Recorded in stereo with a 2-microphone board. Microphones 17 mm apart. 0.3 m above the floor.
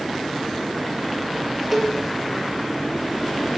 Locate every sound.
1.7 s a cowbell: 10° right (ahead or behind), 3.5 m